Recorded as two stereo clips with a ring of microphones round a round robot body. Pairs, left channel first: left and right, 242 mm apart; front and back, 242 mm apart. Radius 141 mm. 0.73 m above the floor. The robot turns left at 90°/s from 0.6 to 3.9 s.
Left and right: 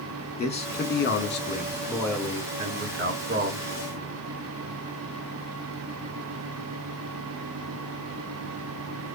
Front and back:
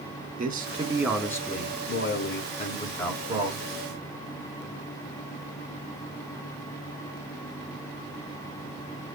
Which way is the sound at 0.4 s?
140° left.